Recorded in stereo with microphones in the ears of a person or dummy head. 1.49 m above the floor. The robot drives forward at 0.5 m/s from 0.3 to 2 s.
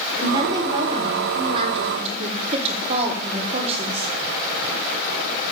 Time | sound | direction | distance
0.2 | a woman speaking | 25° right (ahead or behind) | 2.5 m